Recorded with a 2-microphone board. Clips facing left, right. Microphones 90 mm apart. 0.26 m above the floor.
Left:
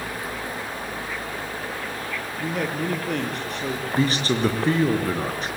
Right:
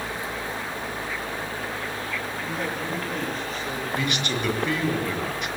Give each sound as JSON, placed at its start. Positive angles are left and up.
{"t": 2.4, "sound": "a man speaking", "side_deg": 75, "distance_m": 6.5}
{"t": 4.0, "sound": "a man speaking", "side_deg": 35, "distance_m": 4.5}